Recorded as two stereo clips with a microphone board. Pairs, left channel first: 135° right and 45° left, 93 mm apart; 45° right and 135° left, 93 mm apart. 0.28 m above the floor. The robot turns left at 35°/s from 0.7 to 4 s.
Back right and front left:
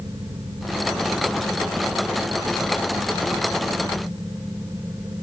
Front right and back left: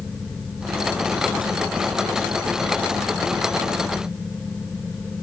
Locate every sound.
Only background noise.